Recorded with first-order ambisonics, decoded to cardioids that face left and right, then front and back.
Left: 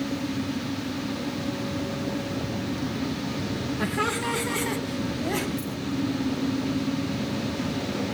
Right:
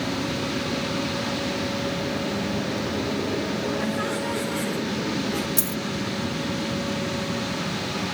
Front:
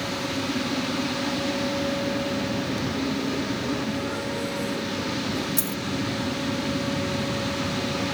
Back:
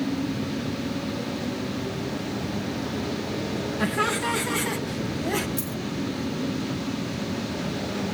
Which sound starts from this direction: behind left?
Laughter, at 3.8 s.